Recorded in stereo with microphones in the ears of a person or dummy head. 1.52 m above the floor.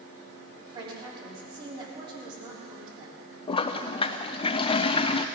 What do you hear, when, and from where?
0.7 s a woman speaking: 20° right (ahead or behind), 3.5 m
3.5 s a toilet flushing: 25° left (ahead or behind), 0.6 m